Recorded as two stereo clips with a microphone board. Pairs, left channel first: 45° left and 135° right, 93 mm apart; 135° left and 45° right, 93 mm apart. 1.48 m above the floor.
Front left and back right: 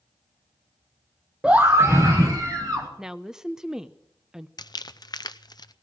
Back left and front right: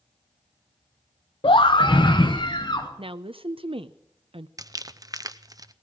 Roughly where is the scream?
Behind left.